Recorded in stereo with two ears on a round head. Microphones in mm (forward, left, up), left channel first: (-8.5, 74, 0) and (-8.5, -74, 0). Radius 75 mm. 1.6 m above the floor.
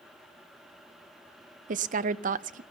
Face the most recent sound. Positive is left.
turn(degrees=-50)  # may be behind; listen again after turning